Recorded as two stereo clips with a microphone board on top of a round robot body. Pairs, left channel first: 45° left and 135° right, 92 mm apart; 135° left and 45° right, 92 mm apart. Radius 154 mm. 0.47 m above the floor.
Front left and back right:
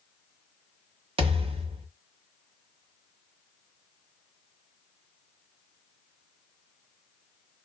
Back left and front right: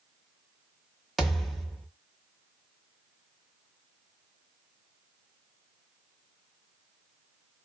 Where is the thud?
135° right, 1.0 m.